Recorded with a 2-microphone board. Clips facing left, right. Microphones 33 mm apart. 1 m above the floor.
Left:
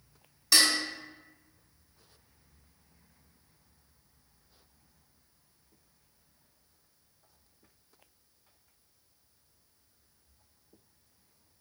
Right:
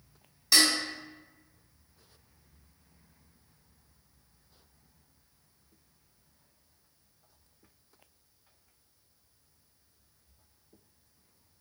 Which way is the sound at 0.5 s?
Centre (ahead or behind).